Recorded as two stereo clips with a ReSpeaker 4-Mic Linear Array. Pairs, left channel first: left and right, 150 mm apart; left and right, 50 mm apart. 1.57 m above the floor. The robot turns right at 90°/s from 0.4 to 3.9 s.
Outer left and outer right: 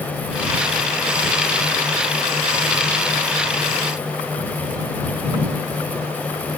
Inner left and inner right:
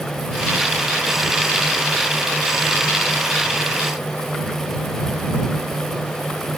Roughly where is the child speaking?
No child speaking in this recording.